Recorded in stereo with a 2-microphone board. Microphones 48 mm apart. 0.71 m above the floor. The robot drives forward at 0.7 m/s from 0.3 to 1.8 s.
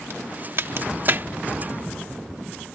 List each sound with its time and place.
0.1 s a crack: 55° right (ahead or behind); by 1.3 s 45° right (ahead or behind)